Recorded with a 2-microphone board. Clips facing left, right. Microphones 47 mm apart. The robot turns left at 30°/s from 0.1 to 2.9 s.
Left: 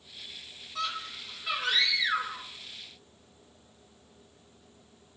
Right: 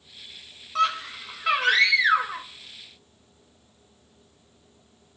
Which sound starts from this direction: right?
A scream, at 0.8 s.